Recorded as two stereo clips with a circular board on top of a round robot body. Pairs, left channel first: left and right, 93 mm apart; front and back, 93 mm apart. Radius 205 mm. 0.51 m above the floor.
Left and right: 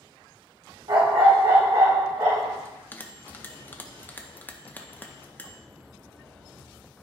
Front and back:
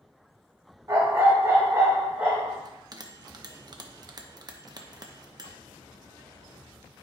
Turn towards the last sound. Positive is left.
turn(degrees=155)